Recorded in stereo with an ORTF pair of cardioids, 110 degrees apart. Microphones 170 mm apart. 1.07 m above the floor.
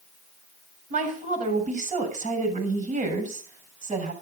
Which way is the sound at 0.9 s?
50° right.